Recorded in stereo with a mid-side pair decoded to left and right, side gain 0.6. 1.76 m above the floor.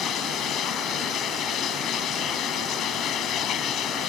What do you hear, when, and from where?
0.0 s running water: 55° left